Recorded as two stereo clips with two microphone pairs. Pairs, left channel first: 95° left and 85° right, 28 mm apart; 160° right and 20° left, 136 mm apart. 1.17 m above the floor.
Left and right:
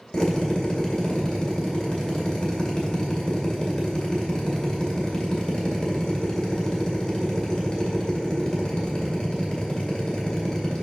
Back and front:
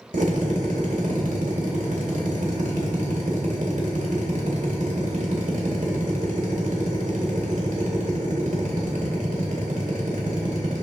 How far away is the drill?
About 1.9 m.